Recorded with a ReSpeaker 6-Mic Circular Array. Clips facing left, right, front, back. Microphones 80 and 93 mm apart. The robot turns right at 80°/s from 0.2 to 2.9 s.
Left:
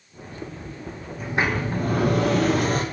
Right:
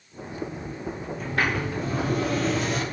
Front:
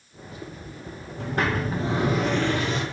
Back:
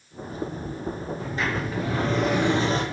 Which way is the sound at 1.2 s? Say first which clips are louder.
Left 2 dB, front 5 dB; 5° left.